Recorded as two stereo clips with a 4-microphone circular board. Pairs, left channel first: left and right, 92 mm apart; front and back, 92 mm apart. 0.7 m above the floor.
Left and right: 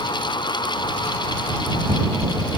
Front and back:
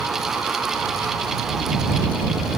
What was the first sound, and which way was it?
Only background noise.